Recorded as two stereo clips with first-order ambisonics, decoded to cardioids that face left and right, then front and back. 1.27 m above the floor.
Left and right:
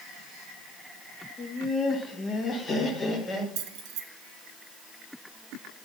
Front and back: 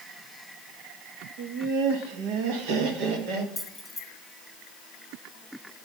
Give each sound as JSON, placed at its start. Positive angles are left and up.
{"t": 1.4, "sound": "laughter", "azimuth_deg": 160, "distance_m": 1.3}
{"t": 3.6, "sound": "keys jangling", "azimuth_deg": -85, "distance_m": 1.3}